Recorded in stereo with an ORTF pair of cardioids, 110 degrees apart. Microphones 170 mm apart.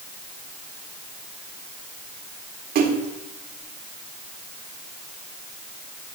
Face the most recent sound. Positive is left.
turn(degrees=-60)